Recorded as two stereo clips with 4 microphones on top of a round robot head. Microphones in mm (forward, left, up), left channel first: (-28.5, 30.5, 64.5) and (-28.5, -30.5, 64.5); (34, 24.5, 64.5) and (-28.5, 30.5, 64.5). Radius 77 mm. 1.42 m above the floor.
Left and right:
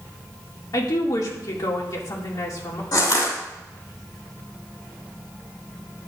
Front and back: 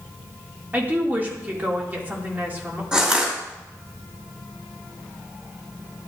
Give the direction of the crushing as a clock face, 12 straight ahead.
9 o'clock.